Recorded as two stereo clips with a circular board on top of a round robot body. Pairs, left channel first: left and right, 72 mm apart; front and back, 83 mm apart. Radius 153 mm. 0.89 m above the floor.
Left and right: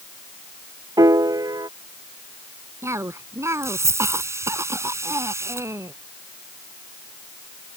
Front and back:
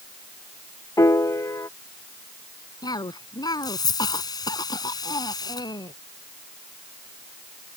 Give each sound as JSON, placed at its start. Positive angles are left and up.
{"t": 1.0, "sound": "a piano", "azimuth_deg": -55}
{"t": 2.8, "sound": "a cough", "azimuth_deg": -40}